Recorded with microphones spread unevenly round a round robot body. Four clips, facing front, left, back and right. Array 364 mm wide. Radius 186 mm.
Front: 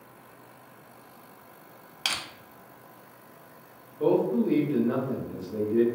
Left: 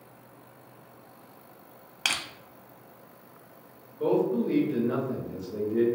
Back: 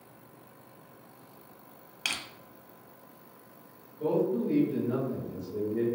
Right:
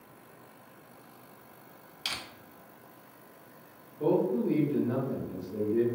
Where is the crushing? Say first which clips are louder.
Left 7 dB, front 4 dB; 70° left, 0.6 m.